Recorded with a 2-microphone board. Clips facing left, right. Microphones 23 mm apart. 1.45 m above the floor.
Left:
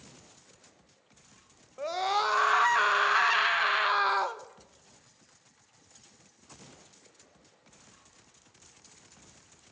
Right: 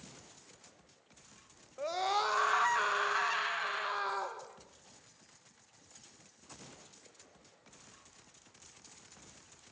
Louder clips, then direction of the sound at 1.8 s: Left 4 dB; 15° left (ahead or behind).